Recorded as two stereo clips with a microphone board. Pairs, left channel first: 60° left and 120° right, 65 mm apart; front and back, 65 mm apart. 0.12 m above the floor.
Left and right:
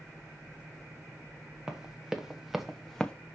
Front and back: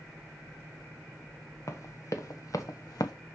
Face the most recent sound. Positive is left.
turn(degrees=-15)